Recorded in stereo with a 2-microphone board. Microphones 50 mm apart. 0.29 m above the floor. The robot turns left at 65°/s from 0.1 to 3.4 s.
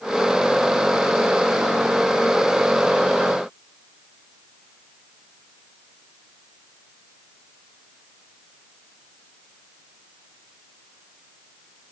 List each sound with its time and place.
Only background noise.